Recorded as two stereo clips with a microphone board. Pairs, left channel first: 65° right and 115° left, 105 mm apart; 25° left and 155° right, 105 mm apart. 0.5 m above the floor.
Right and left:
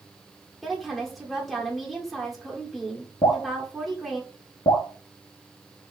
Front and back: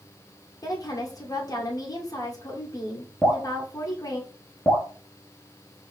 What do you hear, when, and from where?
0.6 s a woman speaking: 20° left, 1.4 m
3.2 s dripping: 70° right, 1.7 m